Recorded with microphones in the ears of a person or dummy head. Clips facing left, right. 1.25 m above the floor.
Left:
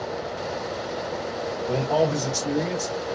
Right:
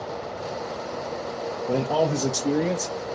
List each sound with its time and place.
1.7 s a man speaking: 15° right (ahead or behind), 0.8 m; by 2.9 s 35° right (ahead or behind), 1.3 m